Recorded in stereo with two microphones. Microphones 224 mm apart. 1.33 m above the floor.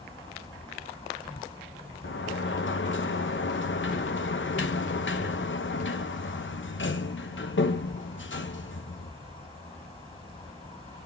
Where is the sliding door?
60° left (ahead or behind), 0.7 m.